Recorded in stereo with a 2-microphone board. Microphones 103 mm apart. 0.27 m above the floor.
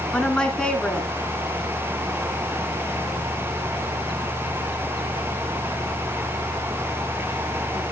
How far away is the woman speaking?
About 2.5 m.